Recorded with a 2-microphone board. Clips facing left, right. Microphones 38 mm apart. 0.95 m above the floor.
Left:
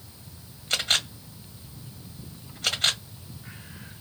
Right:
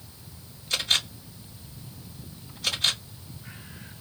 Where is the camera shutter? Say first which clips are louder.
Even; 50° left (ahead or behind), 1.3 m.